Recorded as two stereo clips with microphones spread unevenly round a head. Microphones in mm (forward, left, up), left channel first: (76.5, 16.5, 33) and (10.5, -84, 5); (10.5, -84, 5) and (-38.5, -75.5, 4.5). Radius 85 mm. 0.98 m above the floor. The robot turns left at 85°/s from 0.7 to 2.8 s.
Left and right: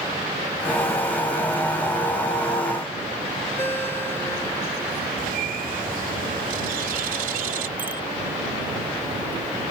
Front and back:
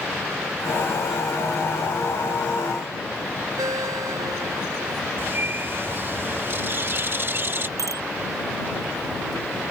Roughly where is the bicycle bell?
Behind left.